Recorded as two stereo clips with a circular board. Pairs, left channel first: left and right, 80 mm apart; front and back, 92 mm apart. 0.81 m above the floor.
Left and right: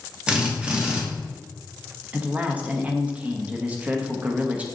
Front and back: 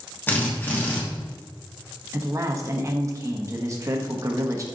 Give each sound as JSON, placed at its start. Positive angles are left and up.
{"t": 0.3, "sound": "a drill", "azimuth_deg": -30, "distance_m": 1.0}
{"t": 2.1, "sound": "a man speaking", "azimuth_deg": -150, "distance_m": 0.6}